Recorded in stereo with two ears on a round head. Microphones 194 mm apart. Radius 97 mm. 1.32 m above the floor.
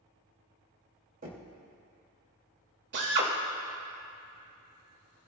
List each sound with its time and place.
1.2 s knocking: 40° right (ahead or behind), 2.5 m
2.9 s a drill: 55° right (ahead or behind), 2.5 m